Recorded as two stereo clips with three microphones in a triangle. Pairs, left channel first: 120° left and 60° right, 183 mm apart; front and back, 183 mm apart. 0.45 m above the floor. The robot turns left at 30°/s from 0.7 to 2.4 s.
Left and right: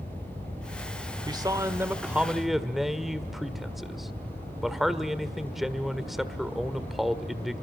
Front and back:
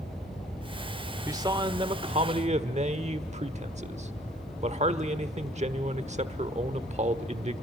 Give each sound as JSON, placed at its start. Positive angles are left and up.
{"t": 1.3, "sound": "a man speaking", "azimuth_deg": -115, "distance_m": 1.1}